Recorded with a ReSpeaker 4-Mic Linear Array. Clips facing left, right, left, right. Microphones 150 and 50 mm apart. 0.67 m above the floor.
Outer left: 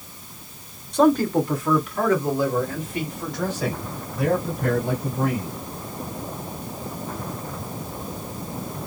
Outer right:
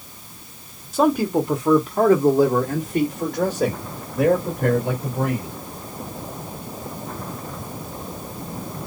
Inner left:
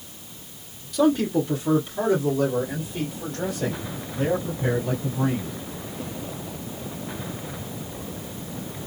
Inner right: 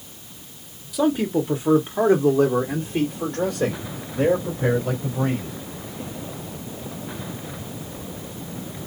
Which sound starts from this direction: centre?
A man speaking, at 0.9 s.